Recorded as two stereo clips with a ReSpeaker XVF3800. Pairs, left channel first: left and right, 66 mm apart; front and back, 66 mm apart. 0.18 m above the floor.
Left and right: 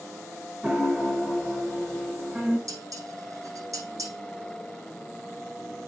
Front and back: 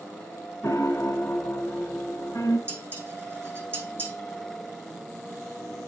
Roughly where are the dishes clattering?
Behind right.